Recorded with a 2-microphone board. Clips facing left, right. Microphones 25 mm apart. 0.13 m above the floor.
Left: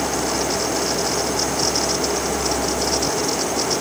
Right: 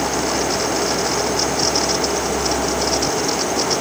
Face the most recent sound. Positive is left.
No sound to turn to.